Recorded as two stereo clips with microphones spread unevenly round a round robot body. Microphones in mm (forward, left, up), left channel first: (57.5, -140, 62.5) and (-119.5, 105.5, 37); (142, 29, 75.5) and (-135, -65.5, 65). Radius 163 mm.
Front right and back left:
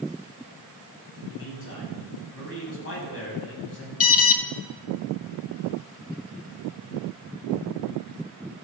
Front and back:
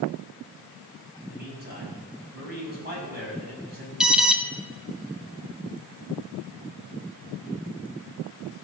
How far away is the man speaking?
About 6 m.